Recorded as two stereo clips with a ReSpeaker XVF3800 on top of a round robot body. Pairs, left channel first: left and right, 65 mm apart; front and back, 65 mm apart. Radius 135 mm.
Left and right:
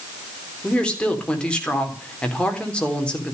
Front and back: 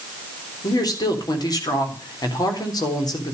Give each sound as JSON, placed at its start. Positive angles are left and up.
{"t": 0.6, "sound": "a woman speaking", "azimuth_deg": 15, "distance_m": 3.5}